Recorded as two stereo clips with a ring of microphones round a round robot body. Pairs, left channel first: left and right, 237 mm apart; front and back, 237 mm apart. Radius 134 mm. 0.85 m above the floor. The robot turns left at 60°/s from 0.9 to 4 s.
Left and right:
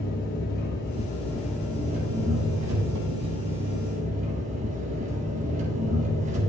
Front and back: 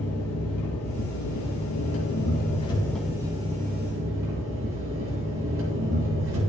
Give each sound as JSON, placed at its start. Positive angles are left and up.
{"t": 0.0, "sound": "an engine running", "azimuth_deg": 35, "distance_m": 2.5}